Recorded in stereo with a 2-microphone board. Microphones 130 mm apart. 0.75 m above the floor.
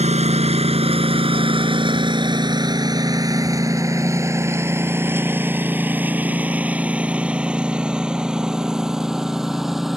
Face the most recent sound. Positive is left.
turn(degrees=0)  # may be behind; listen again after turning